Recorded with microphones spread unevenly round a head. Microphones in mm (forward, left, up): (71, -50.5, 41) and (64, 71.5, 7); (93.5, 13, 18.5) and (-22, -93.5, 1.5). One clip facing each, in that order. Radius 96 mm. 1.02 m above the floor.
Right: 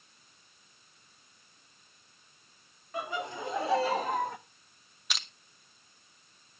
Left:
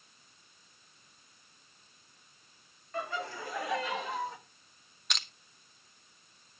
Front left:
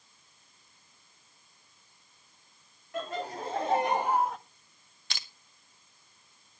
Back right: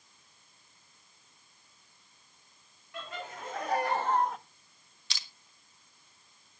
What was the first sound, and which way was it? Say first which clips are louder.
Laughter: right 1 dB, front left 7 dB; 5° right.